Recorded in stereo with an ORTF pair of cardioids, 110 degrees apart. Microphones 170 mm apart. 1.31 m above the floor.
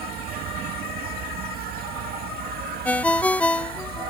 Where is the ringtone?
10° left.